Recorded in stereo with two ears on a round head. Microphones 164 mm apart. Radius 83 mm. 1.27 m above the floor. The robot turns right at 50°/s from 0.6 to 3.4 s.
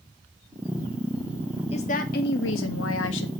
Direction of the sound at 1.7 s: 30° left.